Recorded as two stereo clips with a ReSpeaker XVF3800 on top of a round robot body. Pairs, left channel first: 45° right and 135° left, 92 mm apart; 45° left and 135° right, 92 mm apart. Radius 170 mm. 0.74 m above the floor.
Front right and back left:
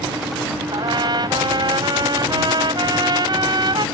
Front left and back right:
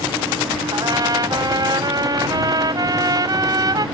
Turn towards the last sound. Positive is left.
turn(degrees=175)